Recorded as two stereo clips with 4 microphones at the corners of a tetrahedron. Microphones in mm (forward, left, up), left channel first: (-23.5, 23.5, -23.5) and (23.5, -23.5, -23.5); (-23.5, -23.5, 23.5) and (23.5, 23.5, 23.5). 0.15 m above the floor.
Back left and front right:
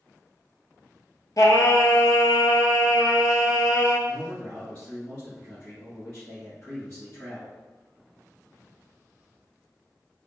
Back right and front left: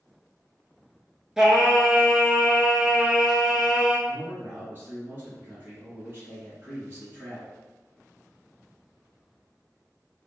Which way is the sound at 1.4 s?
125° left.